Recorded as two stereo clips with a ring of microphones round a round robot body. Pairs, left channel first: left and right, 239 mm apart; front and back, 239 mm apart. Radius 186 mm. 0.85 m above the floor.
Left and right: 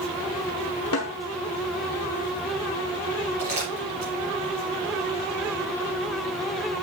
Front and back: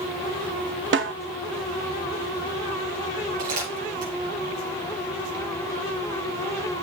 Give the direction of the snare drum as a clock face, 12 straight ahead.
7 o'clock.